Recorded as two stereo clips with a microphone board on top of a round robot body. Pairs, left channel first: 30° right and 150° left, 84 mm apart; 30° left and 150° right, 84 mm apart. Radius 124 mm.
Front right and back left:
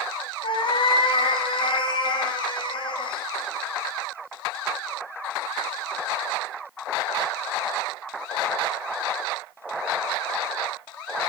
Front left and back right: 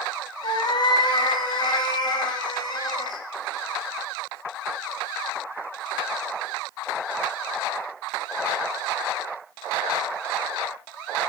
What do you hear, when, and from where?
0.4 s a cat meowing: 5° right, 2 m